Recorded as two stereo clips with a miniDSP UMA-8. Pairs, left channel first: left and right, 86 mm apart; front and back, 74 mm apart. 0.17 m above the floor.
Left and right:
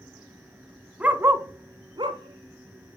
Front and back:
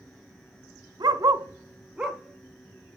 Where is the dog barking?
165° right, 0.6 m; by 3.0 s 80° right, 1.1 m.